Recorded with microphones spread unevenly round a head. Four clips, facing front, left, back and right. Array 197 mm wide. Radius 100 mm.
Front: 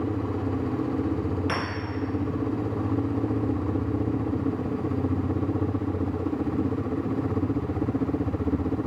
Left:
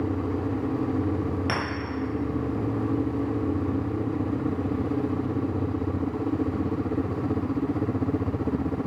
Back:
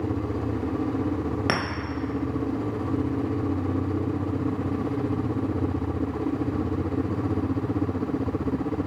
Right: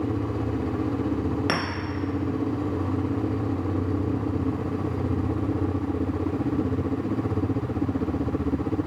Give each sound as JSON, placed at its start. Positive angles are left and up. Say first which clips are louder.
{"t": 1.5, "sound": "a clink", "louder": "right 2 dB, back 3 dB", "azimuth_deg": -170, "distance_m": 0.9}